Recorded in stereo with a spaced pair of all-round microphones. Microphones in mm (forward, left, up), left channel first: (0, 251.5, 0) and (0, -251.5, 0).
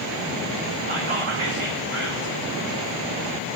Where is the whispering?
65° right (ahead or behind), 1.6 m.